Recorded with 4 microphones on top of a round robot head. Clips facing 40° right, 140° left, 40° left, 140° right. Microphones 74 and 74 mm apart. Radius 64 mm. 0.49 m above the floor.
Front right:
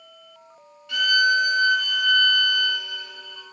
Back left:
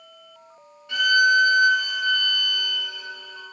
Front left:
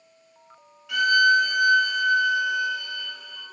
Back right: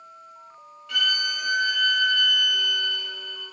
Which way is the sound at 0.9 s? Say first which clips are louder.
Back left 2 dB, front left 10 dB; 115° left.